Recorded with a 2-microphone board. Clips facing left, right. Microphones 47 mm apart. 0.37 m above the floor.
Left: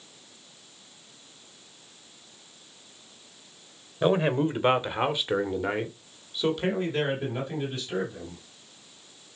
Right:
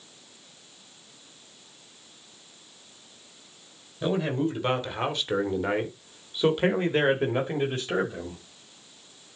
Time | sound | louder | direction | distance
4.0 | a man speaking | left 3 dB | 40° left (ahead or behind) | 1.8 m